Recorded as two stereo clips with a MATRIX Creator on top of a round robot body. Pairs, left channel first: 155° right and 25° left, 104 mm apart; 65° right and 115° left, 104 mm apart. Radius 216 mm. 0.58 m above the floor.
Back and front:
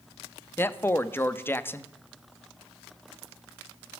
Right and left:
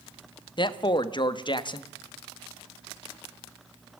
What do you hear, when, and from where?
0.6 s a man speaking: 95° right, 1.6 m